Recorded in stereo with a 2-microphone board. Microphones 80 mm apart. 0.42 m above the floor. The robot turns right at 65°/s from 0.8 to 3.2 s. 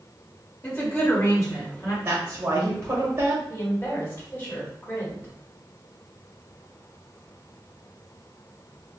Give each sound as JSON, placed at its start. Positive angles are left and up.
{"t": 0.6, "sound": "a woman speaking", "azimuth_deg": 40, "distance_m": 1.7}
{"t": 2.0, "sound": "a woman speaking", "azimuth_deg": -140, "distance_m": 0.9}
{"t": 3.5, "sound": "a woman speaking", "side_deg": 30, "distance_m": 1.5}